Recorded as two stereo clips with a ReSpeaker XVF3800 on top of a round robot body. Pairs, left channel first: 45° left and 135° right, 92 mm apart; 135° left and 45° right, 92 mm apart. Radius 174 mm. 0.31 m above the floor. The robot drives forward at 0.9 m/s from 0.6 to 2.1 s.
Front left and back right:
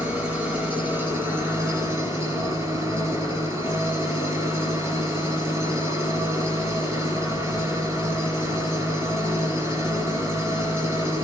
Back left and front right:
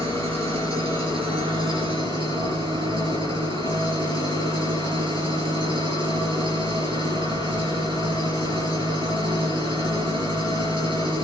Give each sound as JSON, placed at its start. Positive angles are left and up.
{"t": 0.0, "sound": "an engine running", "azimuth_deg": -65, "distance_m": 5.0}